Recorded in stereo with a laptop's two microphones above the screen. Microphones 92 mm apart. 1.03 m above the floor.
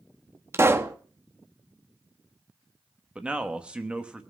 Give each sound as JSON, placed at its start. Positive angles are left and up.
{"t": 0.5, "sound": "a pop", "side_deg": -30, "distance_m": 1.1}
{"t": 3.1, "sound": "a man speaking", "side_deg": -10, "distance_m": 1.0}